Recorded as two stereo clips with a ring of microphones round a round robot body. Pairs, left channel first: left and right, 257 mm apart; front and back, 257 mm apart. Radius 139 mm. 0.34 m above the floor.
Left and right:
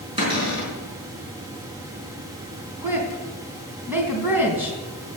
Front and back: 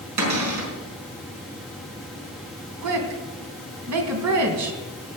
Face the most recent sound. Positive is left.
turn(degrees=-175)